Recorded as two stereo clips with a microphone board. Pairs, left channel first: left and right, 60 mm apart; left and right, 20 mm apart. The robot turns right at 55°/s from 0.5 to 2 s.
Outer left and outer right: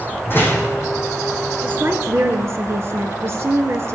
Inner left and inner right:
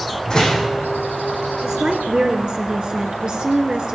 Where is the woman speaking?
30° right (ahead or behind), 2.5 m; by 4.0 s 45° right (ahead or behind), 2.5 m.